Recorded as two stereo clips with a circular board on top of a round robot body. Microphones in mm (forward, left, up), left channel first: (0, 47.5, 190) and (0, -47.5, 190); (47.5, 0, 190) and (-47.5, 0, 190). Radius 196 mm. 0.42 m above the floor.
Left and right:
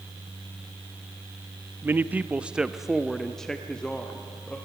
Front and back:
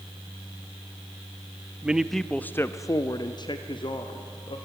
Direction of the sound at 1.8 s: 120° right.